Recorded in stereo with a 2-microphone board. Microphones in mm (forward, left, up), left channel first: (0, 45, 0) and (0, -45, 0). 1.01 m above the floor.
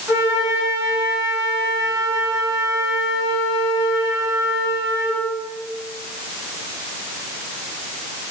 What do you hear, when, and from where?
0.1 s a flute: 35° right (ahead or behind), 3 m